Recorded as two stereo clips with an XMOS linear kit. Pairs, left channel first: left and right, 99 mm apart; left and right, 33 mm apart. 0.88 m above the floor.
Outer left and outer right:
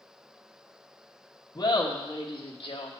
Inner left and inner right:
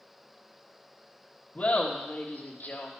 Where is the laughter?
35° left (ahead or behind), 1.3 m; by 2.9 s 60° left (ahead or behind), 1.4 m.